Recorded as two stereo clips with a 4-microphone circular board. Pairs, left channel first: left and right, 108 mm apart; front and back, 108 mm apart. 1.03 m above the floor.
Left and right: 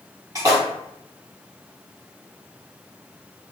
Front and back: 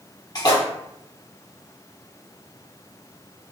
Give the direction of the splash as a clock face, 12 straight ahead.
1 o'clock.